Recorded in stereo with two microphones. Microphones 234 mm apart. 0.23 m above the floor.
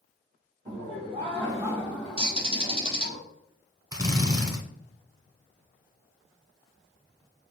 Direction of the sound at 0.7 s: 35° right (ahead or behind).